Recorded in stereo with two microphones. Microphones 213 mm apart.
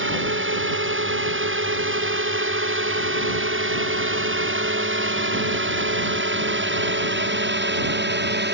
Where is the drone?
70° right (ahead or behind); by 8.5 s 55° right (ahead or behind).